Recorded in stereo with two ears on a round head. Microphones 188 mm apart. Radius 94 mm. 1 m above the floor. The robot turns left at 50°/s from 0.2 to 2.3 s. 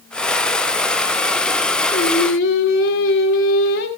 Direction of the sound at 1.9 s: 50° left (ahead or behind).